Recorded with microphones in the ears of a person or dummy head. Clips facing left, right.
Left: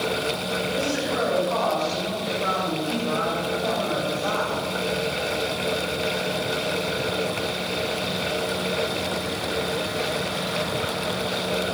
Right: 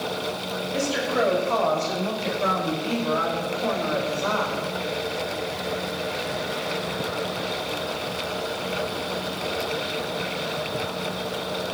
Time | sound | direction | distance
0.7 | a woman speaking | 60° right (ahead or behind) | 8.5 m